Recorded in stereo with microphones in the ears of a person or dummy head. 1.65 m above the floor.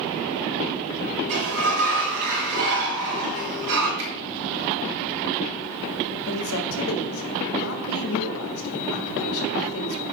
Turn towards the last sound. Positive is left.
turn(degrees=75)  # may be behind; listen again after turning